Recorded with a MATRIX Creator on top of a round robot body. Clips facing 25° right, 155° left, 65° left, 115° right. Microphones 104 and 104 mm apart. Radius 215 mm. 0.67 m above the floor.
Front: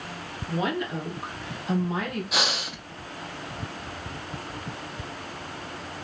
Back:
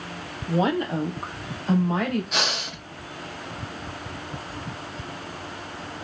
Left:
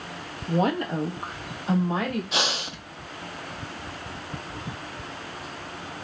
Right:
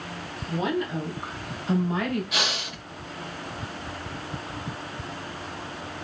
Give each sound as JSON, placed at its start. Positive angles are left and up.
{"t": 0.5, "sound": "a woman speaking", "azimuth_deg": 95, "distance_m": 0.9}
{"t": 2.3, "sound": "breathing", "azimuth_deg": 60, "distance_m": 1.0}